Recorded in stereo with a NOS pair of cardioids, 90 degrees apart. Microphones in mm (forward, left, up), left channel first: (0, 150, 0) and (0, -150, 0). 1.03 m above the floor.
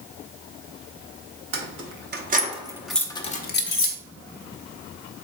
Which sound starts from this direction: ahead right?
Keys jangling, at 1.5 s.